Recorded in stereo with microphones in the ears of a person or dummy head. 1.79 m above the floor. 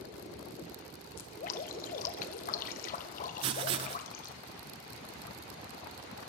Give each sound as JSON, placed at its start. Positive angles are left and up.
{"t": 1.2, "sound": "dripping", "side_deg": 45, "distance_m": 1.3}
{"t": 3.4, "sound": "writing", "side_deg": -25, "distance_m": 0.6}